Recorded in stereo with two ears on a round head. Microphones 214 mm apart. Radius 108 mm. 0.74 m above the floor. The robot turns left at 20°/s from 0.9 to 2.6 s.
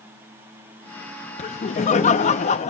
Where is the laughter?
30° left (ahead or behind), 0.6 m.